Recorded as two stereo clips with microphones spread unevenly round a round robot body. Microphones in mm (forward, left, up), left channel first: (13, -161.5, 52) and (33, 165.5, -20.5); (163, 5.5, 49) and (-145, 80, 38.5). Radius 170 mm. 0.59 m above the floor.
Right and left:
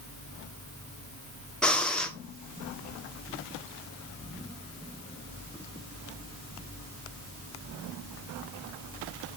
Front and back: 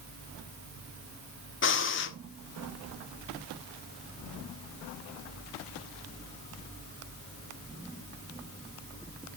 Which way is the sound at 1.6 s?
10° left.